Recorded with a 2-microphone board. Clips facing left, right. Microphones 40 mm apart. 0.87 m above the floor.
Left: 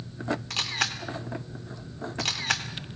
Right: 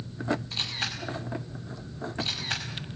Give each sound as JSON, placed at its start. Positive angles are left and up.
{"t": 0.5, "sound": "a camera shutter", "side_deg": 70, "distance_m": 2.5}